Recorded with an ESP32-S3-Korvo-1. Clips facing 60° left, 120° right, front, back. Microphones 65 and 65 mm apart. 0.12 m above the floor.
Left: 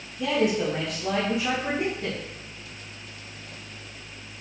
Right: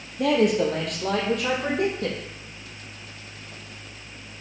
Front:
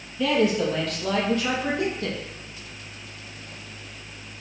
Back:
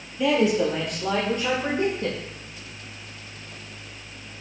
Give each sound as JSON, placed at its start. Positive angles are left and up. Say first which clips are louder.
{"t": 0.2, "sound": "a man speaking", "louder": "right 4 dB, back 1 dB", "azimuth_deg": -105, "distance_m": 3.0}